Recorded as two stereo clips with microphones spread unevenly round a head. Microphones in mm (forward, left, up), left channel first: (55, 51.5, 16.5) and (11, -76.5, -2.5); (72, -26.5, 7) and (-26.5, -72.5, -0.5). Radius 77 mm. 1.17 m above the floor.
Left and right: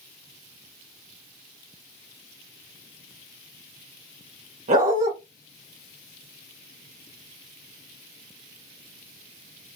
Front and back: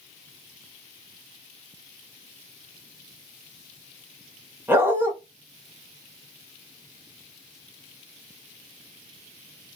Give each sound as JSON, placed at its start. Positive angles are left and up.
{"t": 4.7, "sound": "a dog barking", "azimuth_deg": -85, "distance_m": 2.0}